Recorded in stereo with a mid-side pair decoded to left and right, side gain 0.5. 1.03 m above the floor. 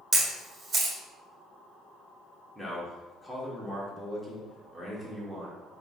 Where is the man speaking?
5° right, 1.3 m.